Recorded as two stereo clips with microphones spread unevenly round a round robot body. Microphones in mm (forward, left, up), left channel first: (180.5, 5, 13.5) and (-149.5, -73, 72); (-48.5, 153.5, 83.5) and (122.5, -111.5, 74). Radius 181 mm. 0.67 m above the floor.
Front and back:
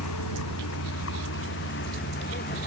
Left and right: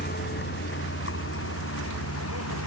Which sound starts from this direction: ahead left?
A vehicle, at 0.0 s.